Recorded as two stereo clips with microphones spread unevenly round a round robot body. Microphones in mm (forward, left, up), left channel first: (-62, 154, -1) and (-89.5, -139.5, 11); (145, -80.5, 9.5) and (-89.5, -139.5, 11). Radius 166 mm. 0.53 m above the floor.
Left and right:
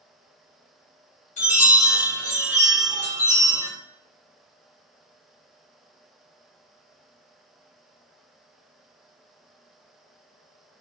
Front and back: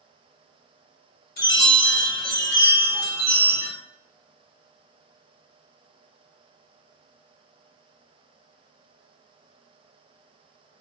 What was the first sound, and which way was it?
A chime, 35° left.